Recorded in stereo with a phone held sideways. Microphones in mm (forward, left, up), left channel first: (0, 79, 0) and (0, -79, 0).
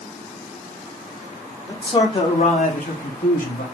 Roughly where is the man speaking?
Left.